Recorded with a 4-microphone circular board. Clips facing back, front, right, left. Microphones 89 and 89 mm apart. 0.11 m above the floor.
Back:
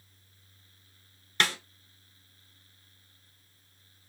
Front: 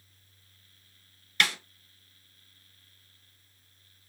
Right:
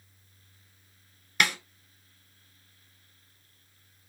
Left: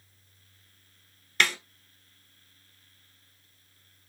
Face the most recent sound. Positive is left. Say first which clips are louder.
# even, even
turn(degrees=-165)